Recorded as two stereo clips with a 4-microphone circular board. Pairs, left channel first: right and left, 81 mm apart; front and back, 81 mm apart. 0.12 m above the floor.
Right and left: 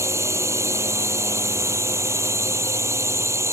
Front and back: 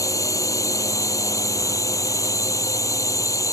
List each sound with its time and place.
0.0 s a drone: 45° left